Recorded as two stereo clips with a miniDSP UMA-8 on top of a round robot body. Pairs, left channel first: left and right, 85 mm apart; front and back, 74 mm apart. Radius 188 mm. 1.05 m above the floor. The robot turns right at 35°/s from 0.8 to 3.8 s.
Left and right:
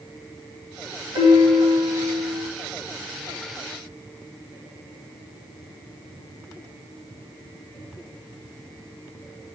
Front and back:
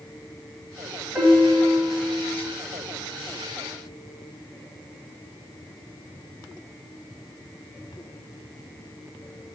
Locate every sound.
1.1 s a piano: 100° right, 1.5 m; by 2.5 s 55° right, 1.5 m